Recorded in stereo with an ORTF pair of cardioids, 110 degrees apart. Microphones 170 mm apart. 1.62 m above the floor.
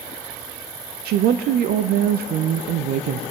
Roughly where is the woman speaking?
Ahead right.